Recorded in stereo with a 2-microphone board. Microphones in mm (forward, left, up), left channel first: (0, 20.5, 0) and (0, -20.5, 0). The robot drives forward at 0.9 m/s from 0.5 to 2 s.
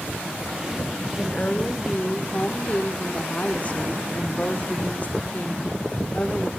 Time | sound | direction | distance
1.2 | a woman speaking | 25° left (ahead or behind) | 2.5 m